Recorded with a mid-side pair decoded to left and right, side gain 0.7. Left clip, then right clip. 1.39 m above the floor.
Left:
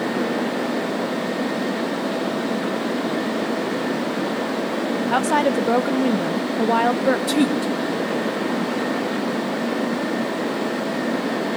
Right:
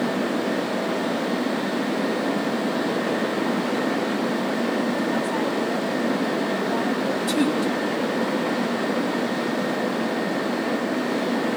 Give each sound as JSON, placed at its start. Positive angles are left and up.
{"t": 5.1, "sound": "a woman speaking", "azimuth_deg": 50, "distance_m": 1.0}
{"t": 7.3, "sound": "a woman speaking", "azimuth_deg": 15, "distance_m": 4.0}